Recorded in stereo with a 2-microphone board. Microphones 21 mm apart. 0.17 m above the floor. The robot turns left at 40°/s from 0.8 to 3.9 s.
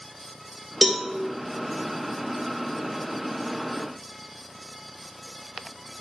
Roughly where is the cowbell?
Centre.